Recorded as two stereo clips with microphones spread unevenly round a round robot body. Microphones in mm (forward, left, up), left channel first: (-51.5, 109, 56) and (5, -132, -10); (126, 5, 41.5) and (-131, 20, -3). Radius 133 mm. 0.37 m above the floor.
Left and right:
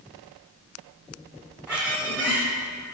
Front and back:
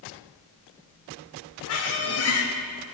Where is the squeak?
15° left, 0.8 m.